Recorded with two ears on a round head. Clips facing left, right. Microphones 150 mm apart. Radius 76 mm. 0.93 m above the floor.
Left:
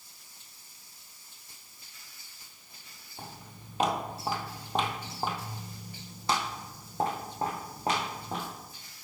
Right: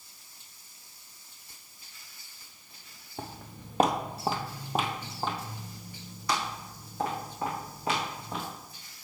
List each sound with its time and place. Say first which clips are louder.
3.2 s footsteps: right 5 dB; 50° right (ahead or behind), 1.4 m; by 8.4 s 35° left (ahead or behind), 3.5 m